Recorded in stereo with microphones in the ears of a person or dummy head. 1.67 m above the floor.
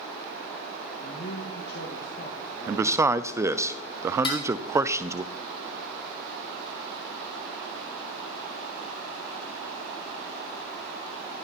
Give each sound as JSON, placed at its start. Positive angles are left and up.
{"t": 1.0, "sound": "a man speaking", "side_deg": 55, "distance_m": 1.9}
{"t": 2.7, "sound": "a man speaking", "side_deg": -15, "distance_m": 0.5}
{"t": 4.2, "sound": "dishes clattering", "side_deg": 35, "distance_m": 2.0}